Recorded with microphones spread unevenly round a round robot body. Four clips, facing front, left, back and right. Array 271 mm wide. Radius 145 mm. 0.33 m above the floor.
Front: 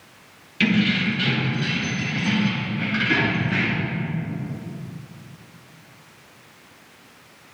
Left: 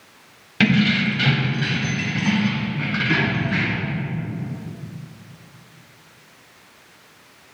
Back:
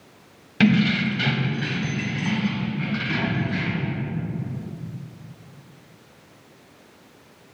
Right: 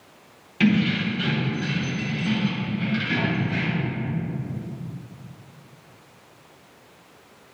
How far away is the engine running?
No engine running in this recording.